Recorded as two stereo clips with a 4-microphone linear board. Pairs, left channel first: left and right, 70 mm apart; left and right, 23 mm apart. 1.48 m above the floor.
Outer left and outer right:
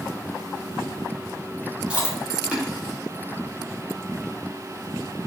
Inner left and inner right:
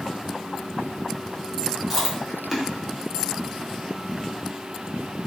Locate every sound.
1.9 s chewing: 15° right (ahead or behind), 0.7 m